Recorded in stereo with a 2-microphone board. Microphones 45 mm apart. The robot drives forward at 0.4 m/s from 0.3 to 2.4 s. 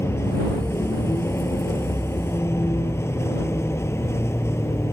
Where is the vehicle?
85° left.